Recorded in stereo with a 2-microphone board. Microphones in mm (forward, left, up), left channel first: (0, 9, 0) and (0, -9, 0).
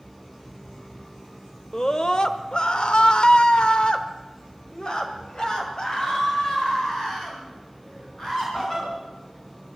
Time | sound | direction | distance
1.7 | a scream | 40° left (ahead or behind) | 1.7 m